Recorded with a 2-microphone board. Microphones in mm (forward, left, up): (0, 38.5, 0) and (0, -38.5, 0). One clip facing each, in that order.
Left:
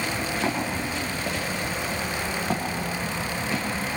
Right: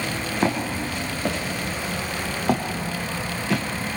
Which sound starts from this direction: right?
Footsteps, at 0.4 s.